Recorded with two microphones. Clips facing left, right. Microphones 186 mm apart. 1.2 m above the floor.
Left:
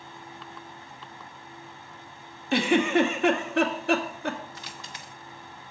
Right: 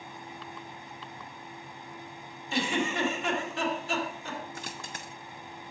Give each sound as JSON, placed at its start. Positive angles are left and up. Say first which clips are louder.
{"t": 2.5, "sound": "a giggle", "louder": "left 8 dB", "side_deg": 70, "distance_m": 0.8}
{"t": 4.5, "sound": "a dropped coin", "louder": "right 2 dB", "side_deg": -50, "distance_m": 0.7}